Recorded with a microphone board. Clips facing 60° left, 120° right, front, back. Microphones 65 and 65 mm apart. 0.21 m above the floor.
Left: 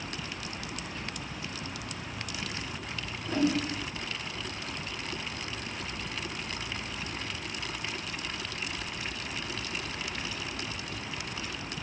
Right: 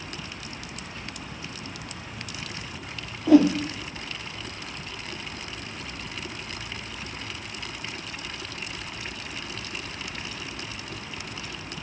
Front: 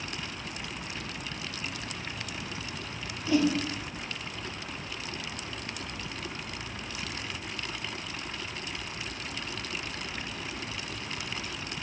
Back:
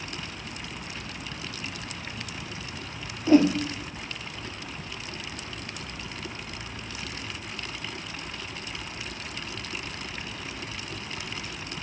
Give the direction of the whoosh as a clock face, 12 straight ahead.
4 o'clock.